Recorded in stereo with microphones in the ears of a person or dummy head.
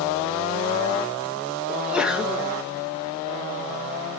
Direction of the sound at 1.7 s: 10° right (ahead or behind).